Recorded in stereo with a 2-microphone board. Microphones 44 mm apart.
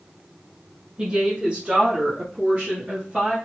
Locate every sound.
1.0 s a woman speaking: 15° right (ahead or behind), 1.6 m; by 3.4 s 20° right (ahead or behind), 2 m